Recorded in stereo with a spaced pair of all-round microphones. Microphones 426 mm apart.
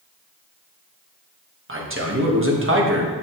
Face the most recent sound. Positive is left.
turn(degrees=-30)  # may be behind; listen again after turning